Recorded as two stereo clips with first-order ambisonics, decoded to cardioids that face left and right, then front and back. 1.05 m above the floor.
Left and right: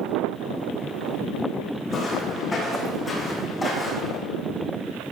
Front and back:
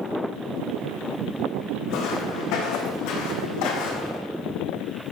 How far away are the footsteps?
About 3.5 m.